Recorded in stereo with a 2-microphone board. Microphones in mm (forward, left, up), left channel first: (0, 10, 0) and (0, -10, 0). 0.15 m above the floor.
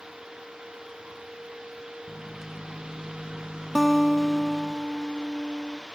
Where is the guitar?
10° left (ahead or behind), 0.6 m.